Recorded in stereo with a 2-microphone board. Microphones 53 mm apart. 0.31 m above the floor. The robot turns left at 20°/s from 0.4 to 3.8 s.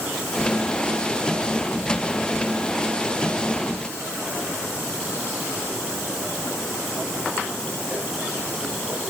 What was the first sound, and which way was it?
Only background noise.